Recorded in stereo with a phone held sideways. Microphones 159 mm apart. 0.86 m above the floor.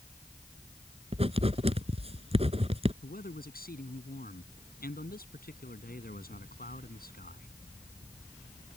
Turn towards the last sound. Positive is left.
turn(degrees=70)  # may be behind; listen again after turning